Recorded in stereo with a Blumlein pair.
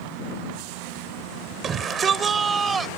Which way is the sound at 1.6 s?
25° right.